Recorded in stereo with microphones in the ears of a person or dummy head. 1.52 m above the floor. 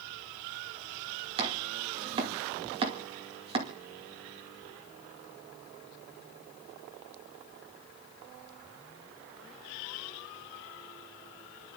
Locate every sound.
1.4 s chopping: 35° right (ahead or behind), 2.5 m